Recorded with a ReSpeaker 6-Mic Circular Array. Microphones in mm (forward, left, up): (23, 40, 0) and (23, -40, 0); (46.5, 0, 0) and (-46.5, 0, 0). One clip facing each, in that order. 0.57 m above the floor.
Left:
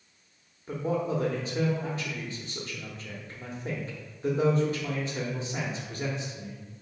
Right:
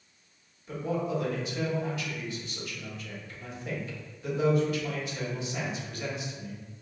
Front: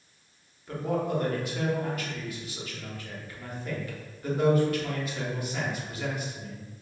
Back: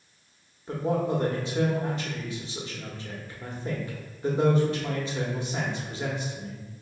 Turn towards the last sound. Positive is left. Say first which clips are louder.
# left 2 dB, back 2 dB
turn(degrees=125)